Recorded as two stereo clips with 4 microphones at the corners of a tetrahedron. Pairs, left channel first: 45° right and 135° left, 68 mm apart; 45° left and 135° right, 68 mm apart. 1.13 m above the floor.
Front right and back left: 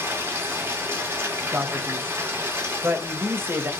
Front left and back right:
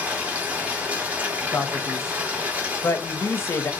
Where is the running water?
170° left, 0.9 m.